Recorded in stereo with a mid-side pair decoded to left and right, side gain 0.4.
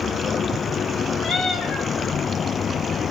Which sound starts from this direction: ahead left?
A cat meowing, at 1.2 s.